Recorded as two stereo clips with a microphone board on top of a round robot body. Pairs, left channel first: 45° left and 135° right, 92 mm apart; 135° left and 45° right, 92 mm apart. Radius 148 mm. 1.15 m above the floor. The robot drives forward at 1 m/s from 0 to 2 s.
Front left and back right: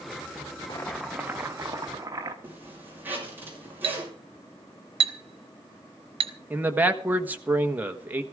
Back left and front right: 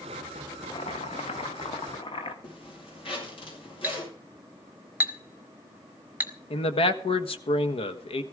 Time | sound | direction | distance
0.7 | boiling | 90° left | 0.5 m
2.4 | a zipper | 155° left | 6.5 m
3.8 | a clink | 120° right | 0.9 m
6.5 | a man speaking | 150° left | 1.6 m